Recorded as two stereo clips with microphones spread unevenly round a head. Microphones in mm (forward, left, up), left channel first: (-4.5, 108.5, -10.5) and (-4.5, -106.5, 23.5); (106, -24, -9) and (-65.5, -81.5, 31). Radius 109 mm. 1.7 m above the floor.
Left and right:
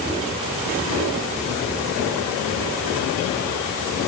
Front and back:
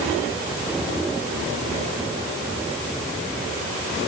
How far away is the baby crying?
No baby crying in this recording.